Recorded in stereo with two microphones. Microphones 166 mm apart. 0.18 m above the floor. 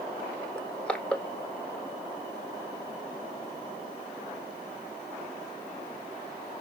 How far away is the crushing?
About 0.9 m.